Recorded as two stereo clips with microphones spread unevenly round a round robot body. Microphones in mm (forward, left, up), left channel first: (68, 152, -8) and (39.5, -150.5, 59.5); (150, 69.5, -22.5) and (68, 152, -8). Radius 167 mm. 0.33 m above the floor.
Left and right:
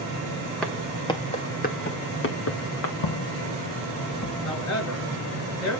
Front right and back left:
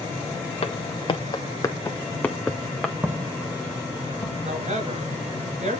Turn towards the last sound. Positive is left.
turn(degrees=130)